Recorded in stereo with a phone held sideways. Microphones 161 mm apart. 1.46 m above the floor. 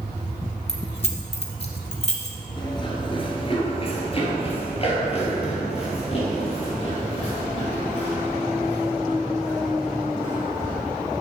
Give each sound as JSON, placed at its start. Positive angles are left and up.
{"t": 0.7, "sound": "keys jangling", "side_deg": 40, "distance_m": 1.4}
{"t": 2.6, "sound": "running footsteps", "side_deg": 30, "distance_m": 1.5}